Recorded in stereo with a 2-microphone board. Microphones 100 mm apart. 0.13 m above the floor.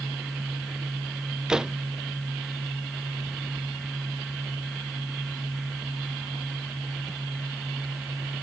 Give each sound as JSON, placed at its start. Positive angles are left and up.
{"t": 1.5, "sound": "a door slam", "side_deg": -5}